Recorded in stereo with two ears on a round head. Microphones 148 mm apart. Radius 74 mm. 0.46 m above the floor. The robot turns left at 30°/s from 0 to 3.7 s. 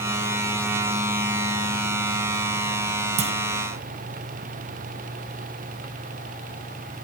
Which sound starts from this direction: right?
A clunk, at 3.2 s.